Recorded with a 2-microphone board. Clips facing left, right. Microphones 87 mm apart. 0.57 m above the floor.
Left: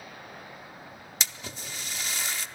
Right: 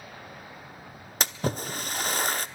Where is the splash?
45° right (ahead or behind), 0.7 m.